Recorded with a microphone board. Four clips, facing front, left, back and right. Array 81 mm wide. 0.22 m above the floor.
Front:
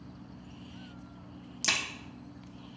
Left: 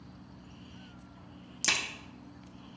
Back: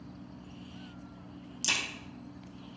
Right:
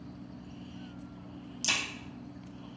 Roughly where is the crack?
Ahead left.